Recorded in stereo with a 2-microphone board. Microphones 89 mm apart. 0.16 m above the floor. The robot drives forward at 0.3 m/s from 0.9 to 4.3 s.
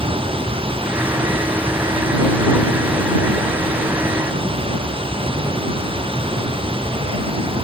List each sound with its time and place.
0.0 s running water: 85° right